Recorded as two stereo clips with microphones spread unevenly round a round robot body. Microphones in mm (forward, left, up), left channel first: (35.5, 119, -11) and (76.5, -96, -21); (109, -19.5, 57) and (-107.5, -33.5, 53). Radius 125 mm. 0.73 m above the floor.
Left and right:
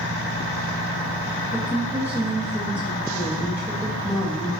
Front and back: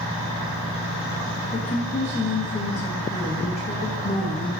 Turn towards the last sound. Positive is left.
turn(degrees=-15)